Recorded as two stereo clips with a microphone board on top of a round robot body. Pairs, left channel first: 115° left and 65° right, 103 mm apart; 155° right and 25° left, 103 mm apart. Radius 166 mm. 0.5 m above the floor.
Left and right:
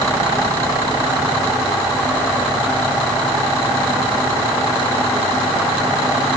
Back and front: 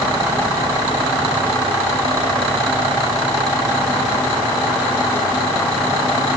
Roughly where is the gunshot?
I don't hear a gunshot.